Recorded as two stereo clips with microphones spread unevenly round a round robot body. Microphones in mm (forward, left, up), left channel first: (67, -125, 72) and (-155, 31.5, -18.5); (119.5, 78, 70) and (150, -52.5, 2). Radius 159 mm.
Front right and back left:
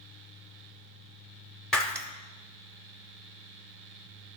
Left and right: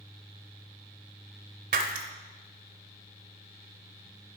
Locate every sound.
1.7 s breaking glass: 85° right, 0.6 m